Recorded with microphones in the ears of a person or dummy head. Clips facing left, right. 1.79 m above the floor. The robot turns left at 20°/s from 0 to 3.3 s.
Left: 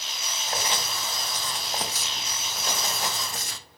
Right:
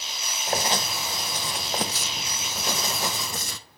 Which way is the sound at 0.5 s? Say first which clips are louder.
Right 5 dB; 35° right.